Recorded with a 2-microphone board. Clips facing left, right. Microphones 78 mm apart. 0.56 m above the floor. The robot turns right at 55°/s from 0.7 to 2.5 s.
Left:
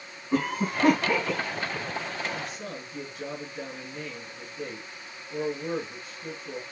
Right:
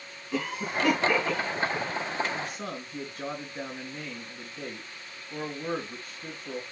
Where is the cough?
40° left (ahead or behind), 3.5 m; by 1.9 s 20° right (ahead or behind), 3.5 m.